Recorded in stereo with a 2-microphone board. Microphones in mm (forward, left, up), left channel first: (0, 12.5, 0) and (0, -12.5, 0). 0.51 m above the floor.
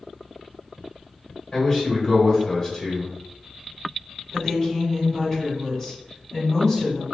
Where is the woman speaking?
15° left (ahead or behind), 1.9 m.